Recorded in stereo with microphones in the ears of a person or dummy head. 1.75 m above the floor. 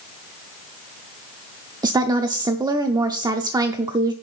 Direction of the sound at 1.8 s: 20° right (ahead or behind).